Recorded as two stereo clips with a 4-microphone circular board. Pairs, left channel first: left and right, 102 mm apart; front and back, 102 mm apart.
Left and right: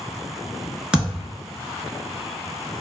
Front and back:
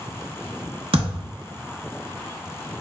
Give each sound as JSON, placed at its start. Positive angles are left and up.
{"t": 0.9, "sound": "a thud", "azimuth_deg": -165, "distance_m": 1.1}